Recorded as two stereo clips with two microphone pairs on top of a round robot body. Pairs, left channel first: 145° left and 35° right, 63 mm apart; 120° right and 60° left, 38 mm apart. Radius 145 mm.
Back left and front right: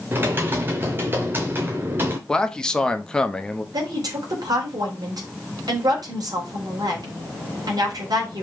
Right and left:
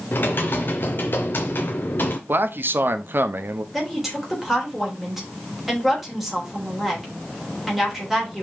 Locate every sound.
0.1 s typing on a keyboard: 85° right, 0.6 m
2.3 s a man speaking: 70° left, 1.0 m
3.7 s a woman speaking: 25° right, 3.5 m